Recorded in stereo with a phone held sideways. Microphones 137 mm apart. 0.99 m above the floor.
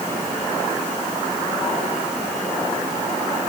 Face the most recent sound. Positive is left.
No sound to turn to.